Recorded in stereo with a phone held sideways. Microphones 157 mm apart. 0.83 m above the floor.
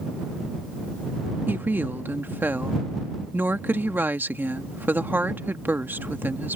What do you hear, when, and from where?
1.5 s a woman speaking: 10° right (ahead or behind)